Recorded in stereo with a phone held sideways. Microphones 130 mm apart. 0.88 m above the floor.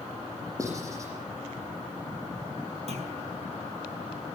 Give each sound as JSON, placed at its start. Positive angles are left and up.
{"t": 0.6, "sound": "writing", "side_deg": -25, "distance_m": 9.5}
{"t": 2.9, "sound": "a clunk", "side_deg": -55, "distance_m": 5.0}